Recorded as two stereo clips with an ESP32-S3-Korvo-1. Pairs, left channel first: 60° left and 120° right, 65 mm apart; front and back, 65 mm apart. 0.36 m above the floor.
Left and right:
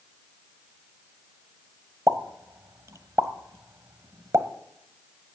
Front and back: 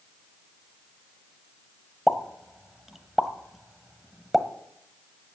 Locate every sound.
2.1 s a pop: 95° right, 1.2 m